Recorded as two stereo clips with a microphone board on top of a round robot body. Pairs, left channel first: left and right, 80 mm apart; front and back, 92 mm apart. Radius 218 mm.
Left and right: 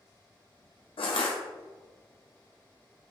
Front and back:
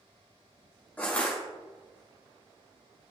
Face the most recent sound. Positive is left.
turn(degrees=75)